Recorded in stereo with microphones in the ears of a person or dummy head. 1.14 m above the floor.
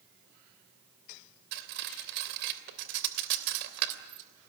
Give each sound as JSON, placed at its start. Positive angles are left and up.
{"t": 1.5, "sound": "cutlery clinking", "side_deg": -60, "distance_m": 3.0}